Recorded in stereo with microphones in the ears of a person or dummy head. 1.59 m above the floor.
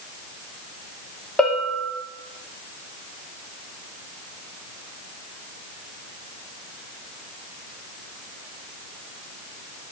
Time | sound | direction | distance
1.4 | a bell | centre (ahead or behind) | 2.5 m